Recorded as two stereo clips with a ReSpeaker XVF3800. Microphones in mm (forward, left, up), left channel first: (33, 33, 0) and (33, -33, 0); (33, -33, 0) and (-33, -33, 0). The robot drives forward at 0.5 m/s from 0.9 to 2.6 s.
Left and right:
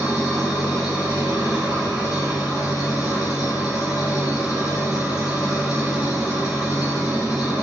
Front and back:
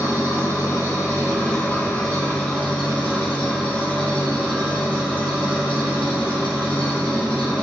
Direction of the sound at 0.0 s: 15° right.